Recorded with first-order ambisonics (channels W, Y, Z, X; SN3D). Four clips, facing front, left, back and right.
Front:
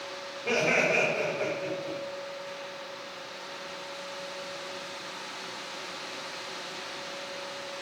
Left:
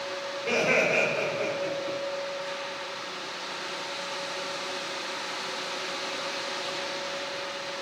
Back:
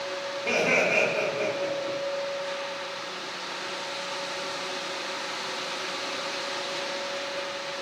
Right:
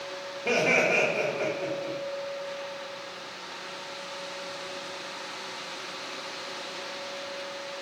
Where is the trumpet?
No trumpet in this recording.